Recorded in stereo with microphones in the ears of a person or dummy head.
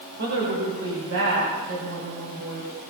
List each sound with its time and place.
0.2 s a woman speaking: 60° right (ahead or behind), 5 m; by 2.7 s 75° right (ahead or behind), 5.5 m